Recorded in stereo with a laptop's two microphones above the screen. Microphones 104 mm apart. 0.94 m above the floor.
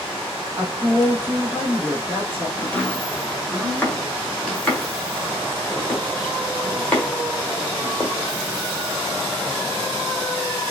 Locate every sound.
0.6 s a woman speaking: 20° right (ahead or behind), 1.3 m
2.6 s chopping: 15° left (ahead or behind), 1.4 m